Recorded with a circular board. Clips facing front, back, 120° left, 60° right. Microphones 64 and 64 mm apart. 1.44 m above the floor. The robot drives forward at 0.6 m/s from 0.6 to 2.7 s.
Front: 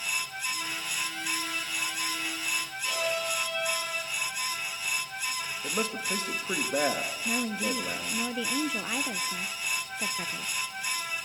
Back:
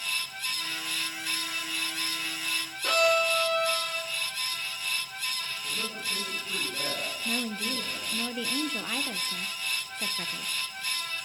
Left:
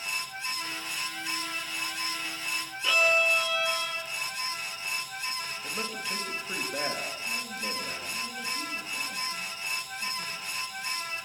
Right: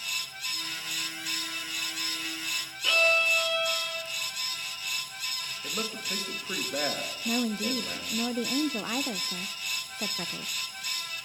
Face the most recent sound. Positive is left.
turn(degrees=-85)